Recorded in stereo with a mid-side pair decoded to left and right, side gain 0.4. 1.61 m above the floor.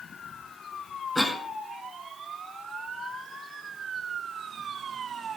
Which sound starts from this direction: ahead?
A cough, at 1.1 s.